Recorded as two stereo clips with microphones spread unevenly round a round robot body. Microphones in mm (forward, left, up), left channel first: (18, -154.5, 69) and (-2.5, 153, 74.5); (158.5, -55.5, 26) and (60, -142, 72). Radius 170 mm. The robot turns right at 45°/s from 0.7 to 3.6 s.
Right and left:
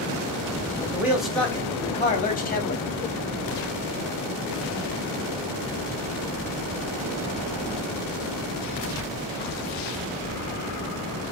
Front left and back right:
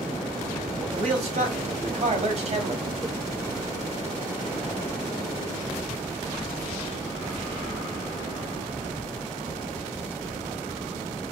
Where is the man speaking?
170° left, 1.5 m; by 2.9 s 105° right, 1.5 m.